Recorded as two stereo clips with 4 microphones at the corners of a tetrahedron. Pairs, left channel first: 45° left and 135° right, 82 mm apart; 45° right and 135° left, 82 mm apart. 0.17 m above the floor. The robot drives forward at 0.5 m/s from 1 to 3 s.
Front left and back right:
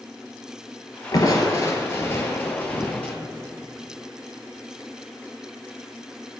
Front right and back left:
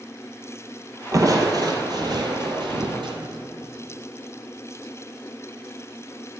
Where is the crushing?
90° left, 1.7 m; by 3.1 s 120° left, 2.0 m.